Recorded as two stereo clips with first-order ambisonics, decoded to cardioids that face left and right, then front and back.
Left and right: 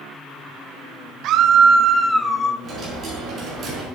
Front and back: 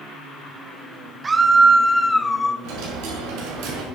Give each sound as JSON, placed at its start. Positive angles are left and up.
{"t": 1.2, "sound": "a scream", "azimuth_deg": -110, "distance_m": 1.0}
{"t": 2.6, "sound": "a dropped coin", "azimuth_deg": -155, "distance_m": 5.5}